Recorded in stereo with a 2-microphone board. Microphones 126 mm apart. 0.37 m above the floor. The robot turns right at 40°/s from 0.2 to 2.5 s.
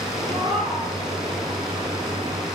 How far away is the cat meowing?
About 8.5 m.